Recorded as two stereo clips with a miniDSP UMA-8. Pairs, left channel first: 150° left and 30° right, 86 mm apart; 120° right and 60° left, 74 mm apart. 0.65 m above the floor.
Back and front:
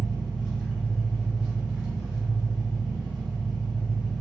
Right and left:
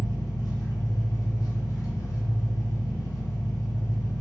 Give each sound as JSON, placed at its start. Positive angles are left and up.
{"t": 0.0, "sound": "an engine running", "azimuth_deg": -110, "distance_m": 1.5}